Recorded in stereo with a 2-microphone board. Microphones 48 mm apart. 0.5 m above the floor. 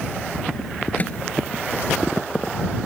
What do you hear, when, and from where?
1.0 s a microwave: 30° left (ahead or behind)